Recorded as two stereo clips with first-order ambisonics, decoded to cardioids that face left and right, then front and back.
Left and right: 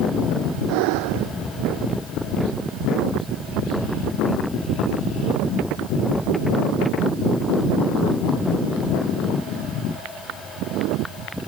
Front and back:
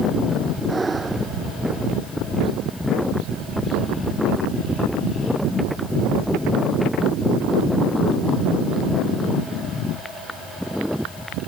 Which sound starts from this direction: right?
Breathing, at 0.7 s.